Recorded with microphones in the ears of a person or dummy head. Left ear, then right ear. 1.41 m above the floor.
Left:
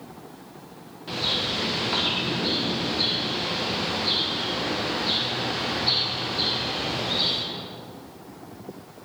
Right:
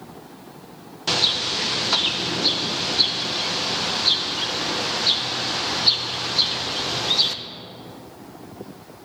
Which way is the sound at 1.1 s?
75° right (ahead or behind).